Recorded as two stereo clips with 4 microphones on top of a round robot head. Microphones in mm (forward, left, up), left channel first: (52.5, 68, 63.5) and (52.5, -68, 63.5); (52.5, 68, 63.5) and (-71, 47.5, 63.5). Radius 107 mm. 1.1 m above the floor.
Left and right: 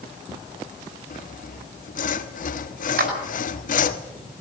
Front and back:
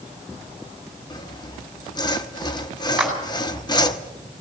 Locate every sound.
1.1 s sawing: 65° left, 1.3 m
3.0 s a clap: 85° right, 5.5 m